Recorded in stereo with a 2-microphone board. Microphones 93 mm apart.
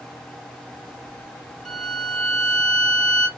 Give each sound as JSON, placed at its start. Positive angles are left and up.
{"t": 1.6, "sound": "a violin", "side_deg": 5, "distance_m": 1.4}